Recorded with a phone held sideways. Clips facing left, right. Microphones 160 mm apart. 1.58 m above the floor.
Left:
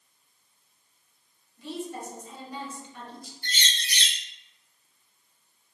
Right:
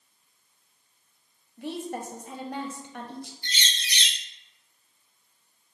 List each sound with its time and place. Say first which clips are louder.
1.6 s a woman speaking: right 2 dB; 60° right (ahead or behind), 0.7 m
3.4 s a bird: left 1 dB; 50° left (ahead or behind), 0.6 m